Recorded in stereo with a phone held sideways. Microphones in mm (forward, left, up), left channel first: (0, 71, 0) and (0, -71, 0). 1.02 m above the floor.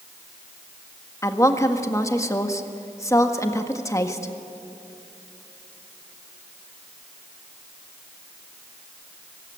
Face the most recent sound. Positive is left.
turn(degrees=20)  # may be behind; listen again after turning